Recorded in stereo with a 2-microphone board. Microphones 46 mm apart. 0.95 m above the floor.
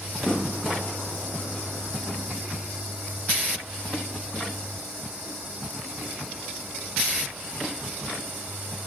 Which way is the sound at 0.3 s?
30° left (ahead or behind).